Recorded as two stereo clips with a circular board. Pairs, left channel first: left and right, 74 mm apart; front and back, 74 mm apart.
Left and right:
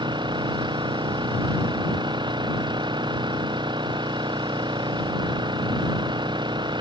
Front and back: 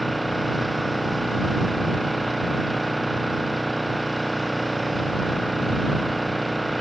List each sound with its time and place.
0.0 s an engine running: 90° right